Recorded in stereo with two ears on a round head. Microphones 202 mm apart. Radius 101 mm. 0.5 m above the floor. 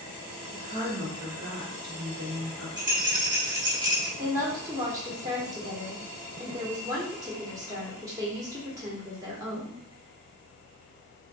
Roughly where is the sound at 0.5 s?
Right.